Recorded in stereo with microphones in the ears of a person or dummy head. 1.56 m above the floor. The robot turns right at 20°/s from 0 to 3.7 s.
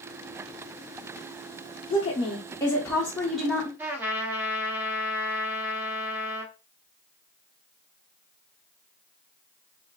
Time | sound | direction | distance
1.9 | a woman speaking | 150° left | 0.9 m
3.8 | a trumpet | 15° right (ahead or behind) | 0.8 m